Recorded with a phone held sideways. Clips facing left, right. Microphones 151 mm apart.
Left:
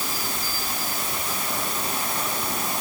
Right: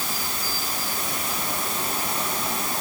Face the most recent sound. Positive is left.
No sound to turn to.